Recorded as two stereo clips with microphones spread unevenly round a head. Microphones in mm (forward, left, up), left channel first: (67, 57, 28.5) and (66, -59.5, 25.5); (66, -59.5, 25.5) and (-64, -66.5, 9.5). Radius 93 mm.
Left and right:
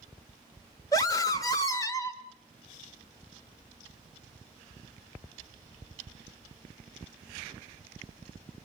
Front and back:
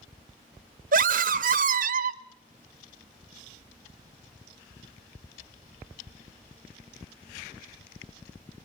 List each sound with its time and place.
0.9 s a scream: 160° left, 1.2 m